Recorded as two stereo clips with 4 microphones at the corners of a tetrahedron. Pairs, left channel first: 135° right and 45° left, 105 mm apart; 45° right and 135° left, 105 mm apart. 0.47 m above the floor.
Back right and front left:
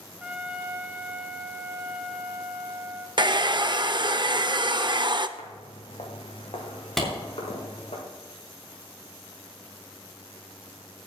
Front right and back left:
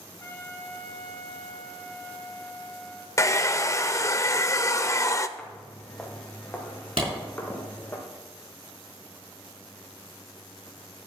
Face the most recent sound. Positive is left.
turn(degrees=135)